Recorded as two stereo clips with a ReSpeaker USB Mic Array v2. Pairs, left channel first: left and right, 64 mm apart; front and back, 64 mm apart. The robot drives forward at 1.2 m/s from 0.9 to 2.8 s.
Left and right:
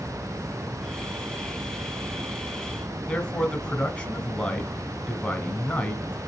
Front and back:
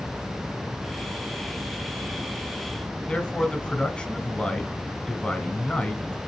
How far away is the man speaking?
About 1.3 m.